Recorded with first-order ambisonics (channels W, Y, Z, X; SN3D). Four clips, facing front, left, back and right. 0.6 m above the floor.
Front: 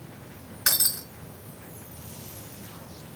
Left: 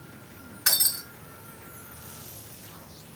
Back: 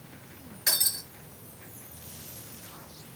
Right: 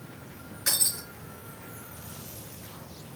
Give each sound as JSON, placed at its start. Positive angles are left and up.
{"t": 0.7, "sound": "breaking glass", "azimuth_deg": 25, "distance_m": 5.0}